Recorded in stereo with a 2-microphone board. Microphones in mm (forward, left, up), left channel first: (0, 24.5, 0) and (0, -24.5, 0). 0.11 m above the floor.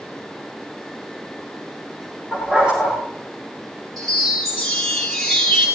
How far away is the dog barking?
About 7.5 m.